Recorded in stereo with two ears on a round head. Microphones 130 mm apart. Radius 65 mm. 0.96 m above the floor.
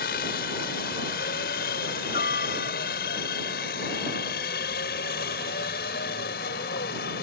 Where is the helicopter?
70° left (ahead or behind).